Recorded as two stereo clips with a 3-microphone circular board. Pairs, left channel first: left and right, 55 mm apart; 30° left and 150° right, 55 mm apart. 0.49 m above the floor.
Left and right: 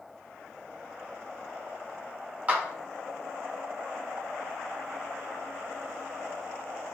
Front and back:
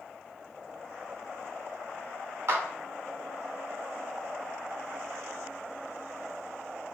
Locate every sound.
2.5 s a clap: 145° right, 1.0 m